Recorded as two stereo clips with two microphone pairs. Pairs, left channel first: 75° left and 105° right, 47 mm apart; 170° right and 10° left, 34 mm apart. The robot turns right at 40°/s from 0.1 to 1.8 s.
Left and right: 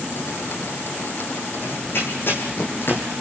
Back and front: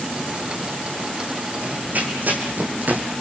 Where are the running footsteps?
35° left, 4.5 m.